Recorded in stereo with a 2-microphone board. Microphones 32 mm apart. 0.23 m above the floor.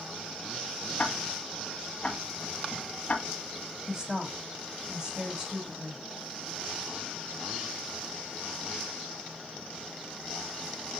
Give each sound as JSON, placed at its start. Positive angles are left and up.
{"t": 1.0, "sound": "ticking", "side_deg": 40, "distance_m": 1.2}
{"t": 3.9, "sound": "a woman speaking", "side_deg": -20, "distance_m": 1.6}